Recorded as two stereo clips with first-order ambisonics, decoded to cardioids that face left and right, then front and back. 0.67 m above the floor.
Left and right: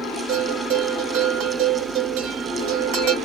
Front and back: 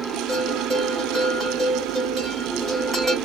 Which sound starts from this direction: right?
A bell, at 0.3 s.